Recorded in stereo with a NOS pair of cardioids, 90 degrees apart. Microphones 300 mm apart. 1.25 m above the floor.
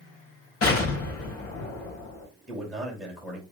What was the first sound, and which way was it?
An explosion, 55° left.